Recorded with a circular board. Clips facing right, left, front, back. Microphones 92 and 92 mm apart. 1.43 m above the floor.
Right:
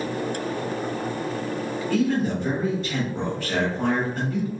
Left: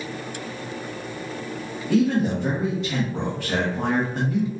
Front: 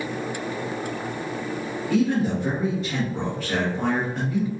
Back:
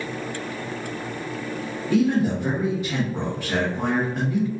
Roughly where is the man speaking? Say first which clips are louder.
Left 3 dB, back 2 dB; left.